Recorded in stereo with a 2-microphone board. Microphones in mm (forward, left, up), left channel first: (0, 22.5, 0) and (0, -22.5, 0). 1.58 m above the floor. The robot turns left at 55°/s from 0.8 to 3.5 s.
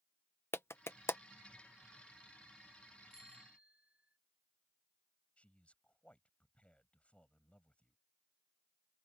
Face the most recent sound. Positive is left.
turn(degrees=30)  # may be behind; listen again after turning